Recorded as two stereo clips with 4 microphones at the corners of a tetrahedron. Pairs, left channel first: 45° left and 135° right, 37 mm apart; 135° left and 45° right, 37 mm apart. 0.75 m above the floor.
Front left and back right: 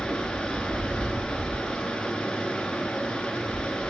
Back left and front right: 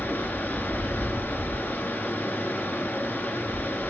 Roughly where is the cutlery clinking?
I don't hear cutlery clinking.